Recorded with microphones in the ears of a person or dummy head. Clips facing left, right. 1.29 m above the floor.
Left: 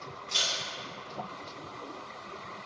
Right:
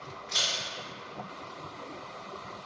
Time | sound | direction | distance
0.3 | a camera shutter | 40° left (ahead or behind) | 1.6 m